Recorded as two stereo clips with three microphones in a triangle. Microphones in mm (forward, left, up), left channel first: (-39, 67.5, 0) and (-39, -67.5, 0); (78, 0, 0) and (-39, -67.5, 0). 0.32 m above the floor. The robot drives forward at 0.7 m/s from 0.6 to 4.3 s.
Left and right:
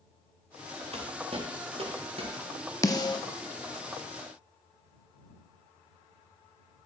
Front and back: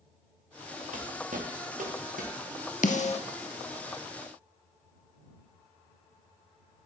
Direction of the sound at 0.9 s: 130° right.